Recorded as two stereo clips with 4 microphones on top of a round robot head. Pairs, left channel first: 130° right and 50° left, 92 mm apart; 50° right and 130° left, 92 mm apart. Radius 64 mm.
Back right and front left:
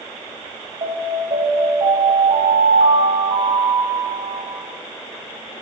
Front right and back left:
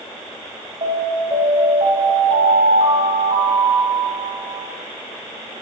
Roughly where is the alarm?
Left.